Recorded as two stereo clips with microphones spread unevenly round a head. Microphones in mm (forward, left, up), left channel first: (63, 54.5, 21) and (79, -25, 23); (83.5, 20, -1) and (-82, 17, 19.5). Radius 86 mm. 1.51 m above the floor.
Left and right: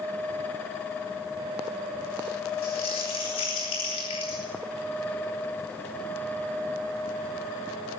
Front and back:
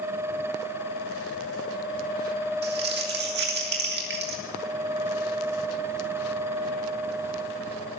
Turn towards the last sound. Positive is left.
turn(degrees=155)